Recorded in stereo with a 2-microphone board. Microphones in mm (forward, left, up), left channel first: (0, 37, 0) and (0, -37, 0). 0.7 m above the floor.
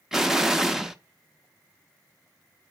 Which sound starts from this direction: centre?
An explosion, at 0.1 s.